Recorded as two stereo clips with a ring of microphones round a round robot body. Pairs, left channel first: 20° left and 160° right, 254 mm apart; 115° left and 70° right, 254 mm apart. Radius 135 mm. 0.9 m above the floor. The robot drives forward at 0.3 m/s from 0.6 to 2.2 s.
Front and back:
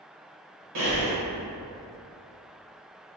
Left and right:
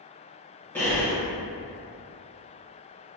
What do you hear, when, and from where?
0.8 s breathing: 165° right, 0.9 m; by 1.1 s 170° right, 1.0 m